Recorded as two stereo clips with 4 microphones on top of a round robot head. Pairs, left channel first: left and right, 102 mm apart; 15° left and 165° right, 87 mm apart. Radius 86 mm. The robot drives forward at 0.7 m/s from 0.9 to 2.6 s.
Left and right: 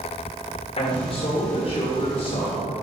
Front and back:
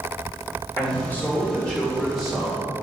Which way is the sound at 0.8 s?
80° left.